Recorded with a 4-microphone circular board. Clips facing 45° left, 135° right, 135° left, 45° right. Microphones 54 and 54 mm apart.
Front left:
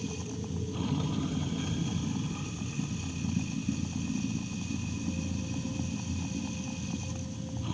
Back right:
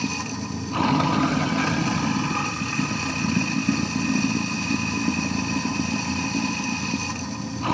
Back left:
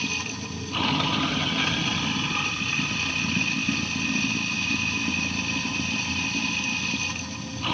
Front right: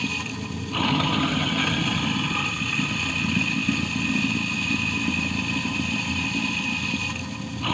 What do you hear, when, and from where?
0.0 s running water: 130° right